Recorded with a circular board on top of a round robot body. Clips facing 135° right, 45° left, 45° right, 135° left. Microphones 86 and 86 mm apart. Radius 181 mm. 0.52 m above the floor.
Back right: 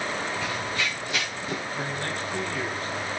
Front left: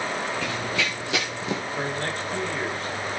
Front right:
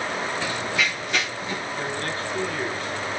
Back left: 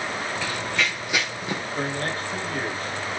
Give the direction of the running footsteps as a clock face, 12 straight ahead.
11 o'clock.